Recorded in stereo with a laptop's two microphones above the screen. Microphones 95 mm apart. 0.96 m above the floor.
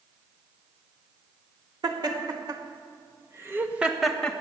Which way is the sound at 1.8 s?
50° right (ahead or behind).